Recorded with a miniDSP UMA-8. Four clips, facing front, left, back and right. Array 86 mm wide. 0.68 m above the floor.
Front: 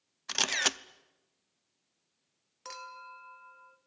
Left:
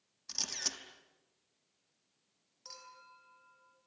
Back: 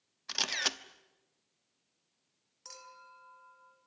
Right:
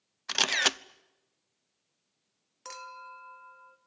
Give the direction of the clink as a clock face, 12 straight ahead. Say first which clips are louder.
Right 12 dB, front 8 dB; 2 o'clock.